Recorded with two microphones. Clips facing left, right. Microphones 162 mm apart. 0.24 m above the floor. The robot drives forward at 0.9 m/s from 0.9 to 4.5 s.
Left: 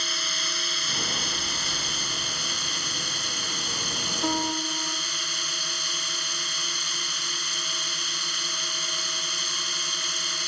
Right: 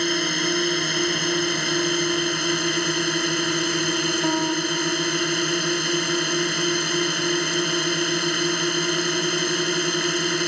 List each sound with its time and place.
0.0 s a drone: 60° right (ahead or behind); by 10.5 s 65° right (ahead or behind)
4.2 s a piano: 15° right (ahead or behind)